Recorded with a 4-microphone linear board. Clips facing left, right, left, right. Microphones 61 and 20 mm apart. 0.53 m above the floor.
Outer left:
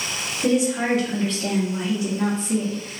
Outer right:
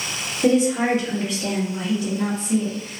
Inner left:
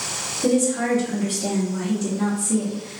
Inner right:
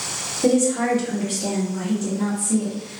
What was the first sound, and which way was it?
A woman speaking, 35° right (ahead or behind).